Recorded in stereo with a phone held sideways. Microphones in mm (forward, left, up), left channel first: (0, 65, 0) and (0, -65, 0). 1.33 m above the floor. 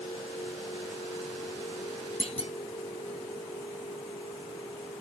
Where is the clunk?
55° left (ahead or behind).